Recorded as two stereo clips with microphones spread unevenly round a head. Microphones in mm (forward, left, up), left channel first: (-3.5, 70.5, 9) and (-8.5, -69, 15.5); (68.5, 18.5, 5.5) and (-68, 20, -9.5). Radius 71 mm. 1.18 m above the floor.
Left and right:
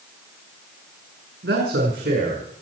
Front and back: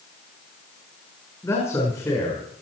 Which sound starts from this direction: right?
A man speaking, at 1.4 s.